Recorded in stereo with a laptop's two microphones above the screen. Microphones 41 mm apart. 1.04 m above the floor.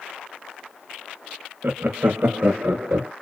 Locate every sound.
1.6 s laughter: 55° right (ahead or behind), 0.8 m; by 3.1 s 65° right (ahead or behind), 2 m